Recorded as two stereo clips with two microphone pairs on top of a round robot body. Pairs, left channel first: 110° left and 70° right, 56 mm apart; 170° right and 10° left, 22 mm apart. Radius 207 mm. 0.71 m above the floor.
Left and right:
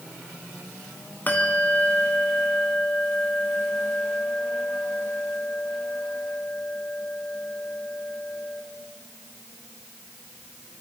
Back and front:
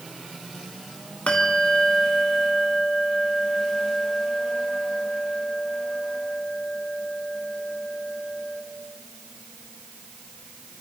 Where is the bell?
170° left, 2 m.